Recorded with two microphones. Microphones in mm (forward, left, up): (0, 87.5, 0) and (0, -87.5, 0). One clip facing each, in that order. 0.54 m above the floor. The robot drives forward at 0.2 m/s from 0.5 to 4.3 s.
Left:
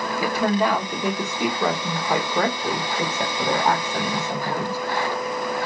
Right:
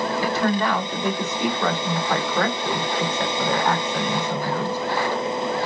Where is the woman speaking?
10° left (ahead or behind), 1.1 m; by 4.8 s 5° left (ahead or behind), 1.7 m.